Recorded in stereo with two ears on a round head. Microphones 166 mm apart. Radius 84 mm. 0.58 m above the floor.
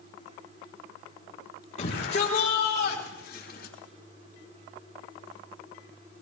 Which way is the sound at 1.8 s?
40° left (ahead or behind).